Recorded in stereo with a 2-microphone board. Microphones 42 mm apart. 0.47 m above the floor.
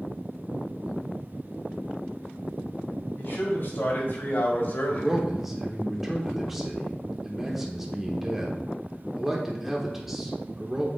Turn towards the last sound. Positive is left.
turn(degrees=-5)  # may be behind; listen again after turning